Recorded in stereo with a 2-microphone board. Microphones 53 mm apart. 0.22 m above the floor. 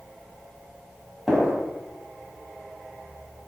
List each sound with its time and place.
1.3 s a gunshot: 5° right (ahead or behind), 1.7 m